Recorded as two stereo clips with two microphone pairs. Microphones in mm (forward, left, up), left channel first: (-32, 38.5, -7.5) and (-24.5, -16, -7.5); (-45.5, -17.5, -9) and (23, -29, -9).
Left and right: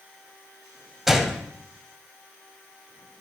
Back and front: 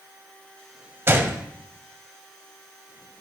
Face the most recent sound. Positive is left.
turn(degrees=0)